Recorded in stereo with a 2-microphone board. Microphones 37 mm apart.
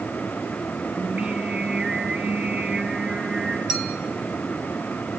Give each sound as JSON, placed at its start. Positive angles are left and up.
{"t": 1.0, "sound": "singing", "side_deg": -45, "distance_m": 4.5}
{"t": 3.7, "sound": "a clink", "side_deg": -15, "distance_m": 3.5}